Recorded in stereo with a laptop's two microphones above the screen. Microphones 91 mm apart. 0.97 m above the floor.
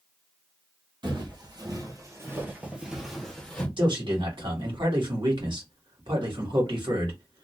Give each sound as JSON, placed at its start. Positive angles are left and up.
{"t": 1.0, "sound": "footsteps", "side_deg": -60, "distance_m": 1.8}
{"t": 3.8, "sound": "a man speaking", "side_deg": -65, "distance_m": 1.9}